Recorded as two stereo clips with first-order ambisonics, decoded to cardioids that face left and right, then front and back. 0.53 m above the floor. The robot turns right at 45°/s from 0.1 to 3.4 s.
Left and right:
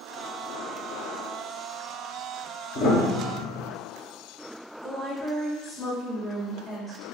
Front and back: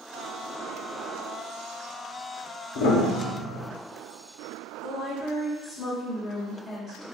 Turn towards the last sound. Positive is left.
turn(degrees=110)